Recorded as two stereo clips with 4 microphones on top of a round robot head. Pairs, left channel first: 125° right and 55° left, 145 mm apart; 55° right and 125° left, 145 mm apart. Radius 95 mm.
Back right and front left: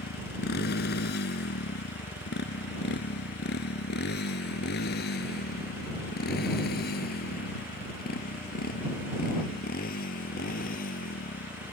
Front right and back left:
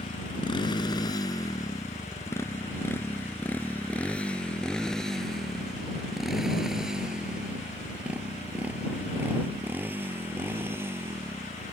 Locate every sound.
0.0 s a motorcycle: 110° right; by 11.7 s 160° right